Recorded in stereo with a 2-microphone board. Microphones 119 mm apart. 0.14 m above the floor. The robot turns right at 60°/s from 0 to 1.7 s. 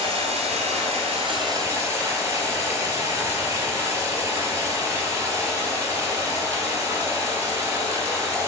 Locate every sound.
0.0 s running water: 125° right, 1.3 m; by 8.5 s 20° right, 1.3 m